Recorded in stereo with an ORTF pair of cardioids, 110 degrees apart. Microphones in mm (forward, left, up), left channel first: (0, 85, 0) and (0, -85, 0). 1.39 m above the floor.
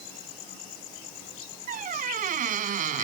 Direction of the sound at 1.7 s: 55° right.